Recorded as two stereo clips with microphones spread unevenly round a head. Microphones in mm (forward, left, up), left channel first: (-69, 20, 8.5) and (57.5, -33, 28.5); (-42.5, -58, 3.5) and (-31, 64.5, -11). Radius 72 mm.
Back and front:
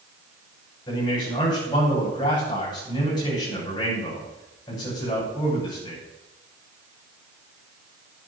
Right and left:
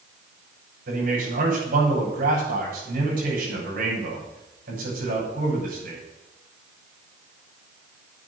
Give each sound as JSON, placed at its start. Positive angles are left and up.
{"t": 0.9, "sound": "a man speaking", "azimuth_deg": 95, "distance_m": 7.5}